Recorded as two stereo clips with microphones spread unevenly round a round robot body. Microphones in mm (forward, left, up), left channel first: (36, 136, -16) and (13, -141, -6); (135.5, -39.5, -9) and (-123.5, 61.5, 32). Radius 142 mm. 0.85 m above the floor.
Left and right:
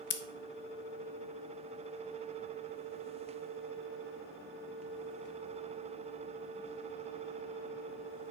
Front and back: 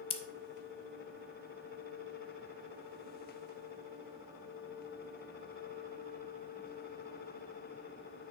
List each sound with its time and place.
0.1 s scissors: 40° left, 0.6 m